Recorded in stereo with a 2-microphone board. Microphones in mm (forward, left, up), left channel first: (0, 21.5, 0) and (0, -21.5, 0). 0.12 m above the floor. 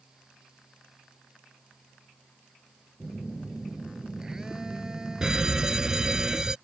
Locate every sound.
3.0 s a phone buzzing: 15° right (ahead or behind)
5.2 s a fire alarm: 15° right (ahead or behind)